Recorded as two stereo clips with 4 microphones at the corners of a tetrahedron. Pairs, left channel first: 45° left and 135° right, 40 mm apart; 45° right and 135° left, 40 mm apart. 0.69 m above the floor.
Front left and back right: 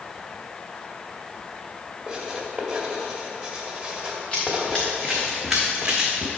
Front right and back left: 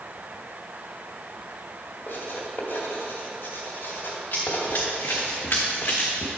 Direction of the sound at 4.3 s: 30° right.